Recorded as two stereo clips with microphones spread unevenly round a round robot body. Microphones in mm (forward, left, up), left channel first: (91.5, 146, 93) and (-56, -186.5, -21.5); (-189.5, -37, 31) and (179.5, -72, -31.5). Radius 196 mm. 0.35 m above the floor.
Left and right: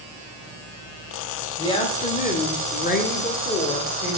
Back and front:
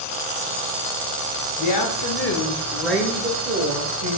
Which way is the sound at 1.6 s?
160° left.